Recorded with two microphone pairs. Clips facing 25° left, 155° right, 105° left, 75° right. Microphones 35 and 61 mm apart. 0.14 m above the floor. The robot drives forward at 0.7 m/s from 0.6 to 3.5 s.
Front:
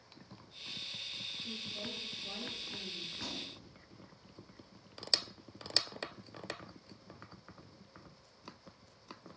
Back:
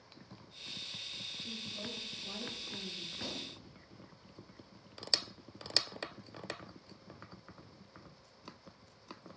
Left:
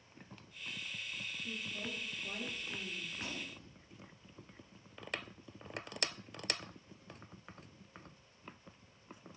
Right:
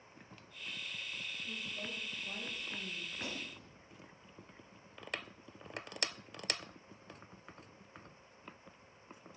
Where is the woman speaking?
115° left, 3 m; by 3.0 s 135° left, 3.5 m.